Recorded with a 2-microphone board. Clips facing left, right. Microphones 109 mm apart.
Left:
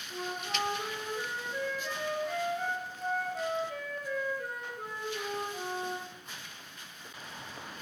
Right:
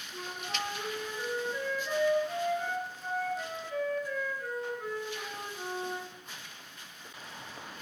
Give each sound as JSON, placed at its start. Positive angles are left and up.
{"t": 0.1, "sound": "a flute", "side_deg": 65, "distance_m": 5.5}